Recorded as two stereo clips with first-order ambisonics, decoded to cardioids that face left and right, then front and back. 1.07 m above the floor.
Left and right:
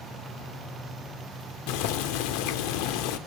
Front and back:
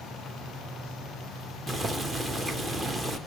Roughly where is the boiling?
Left.